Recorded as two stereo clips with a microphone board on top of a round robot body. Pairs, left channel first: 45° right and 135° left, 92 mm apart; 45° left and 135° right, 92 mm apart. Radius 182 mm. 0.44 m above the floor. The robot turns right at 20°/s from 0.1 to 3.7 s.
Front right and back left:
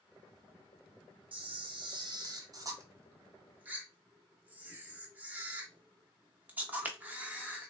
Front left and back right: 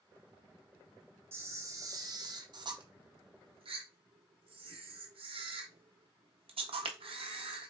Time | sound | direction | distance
1.3 | a camera shutter | 160° left | 0.7 m